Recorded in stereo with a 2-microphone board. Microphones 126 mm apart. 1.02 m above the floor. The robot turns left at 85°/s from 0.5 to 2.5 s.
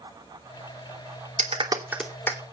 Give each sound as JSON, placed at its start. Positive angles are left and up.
{"t": 1.4, "sound": "a clap", "side_deg": -60, "distance_m": 2.5}